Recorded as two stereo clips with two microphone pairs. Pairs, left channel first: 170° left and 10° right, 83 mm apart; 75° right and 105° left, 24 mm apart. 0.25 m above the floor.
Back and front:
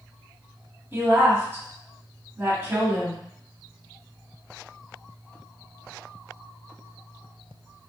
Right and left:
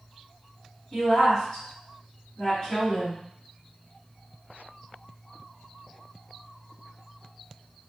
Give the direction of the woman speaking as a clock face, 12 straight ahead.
1 o'clock.